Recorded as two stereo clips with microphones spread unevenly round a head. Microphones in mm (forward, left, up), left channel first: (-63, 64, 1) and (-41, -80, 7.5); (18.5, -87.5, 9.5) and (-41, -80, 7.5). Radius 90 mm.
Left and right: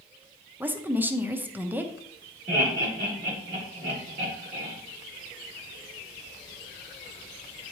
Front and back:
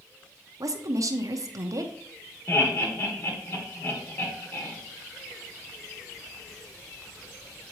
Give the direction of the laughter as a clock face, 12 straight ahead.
1 o'clock.